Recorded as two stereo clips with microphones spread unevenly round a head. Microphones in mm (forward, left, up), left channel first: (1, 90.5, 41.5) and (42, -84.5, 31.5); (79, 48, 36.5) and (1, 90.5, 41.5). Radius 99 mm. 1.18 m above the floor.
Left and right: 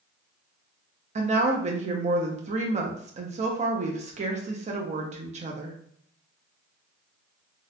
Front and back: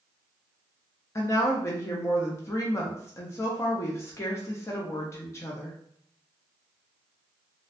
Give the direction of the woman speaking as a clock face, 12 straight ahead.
2 o'clock.